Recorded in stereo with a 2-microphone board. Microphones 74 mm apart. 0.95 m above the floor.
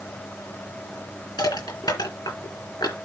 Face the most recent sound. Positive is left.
turn(degrees=75)  # may be behind; listen again after turning